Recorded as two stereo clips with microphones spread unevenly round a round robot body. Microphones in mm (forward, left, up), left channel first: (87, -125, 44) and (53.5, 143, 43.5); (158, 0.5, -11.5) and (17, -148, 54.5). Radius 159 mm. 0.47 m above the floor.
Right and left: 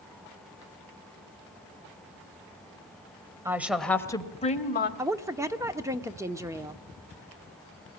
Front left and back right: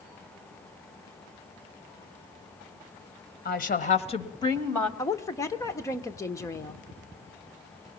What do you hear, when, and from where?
3.5 s a woman speaking: 20° left, 2.5 m; by 4.9 s 30° right, 2.5 m
5.0 s a woman speaking: 25° left, 1.1 m